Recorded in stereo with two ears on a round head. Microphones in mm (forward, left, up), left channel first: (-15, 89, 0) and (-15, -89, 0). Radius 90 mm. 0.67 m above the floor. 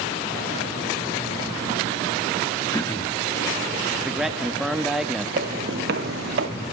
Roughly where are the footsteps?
Right.